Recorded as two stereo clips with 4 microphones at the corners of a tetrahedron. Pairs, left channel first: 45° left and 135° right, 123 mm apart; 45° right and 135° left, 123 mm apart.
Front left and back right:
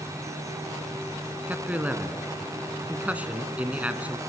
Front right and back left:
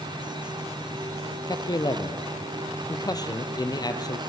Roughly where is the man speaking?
Ahead right.